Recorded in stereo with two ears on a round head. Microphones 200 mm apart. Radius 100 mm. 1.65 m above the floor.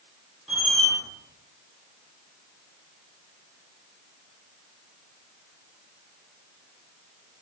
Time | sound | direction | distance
0.5 | a squeak | centre (ahead or behind) | 0.9 m